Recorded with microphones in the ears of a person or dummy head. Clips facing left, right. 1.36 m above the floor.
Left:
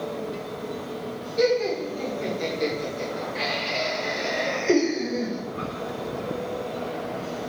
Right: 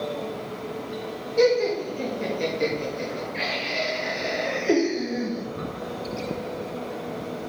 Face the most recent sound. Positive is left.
turn(degrees=-5)  # may be behind; listen again after turning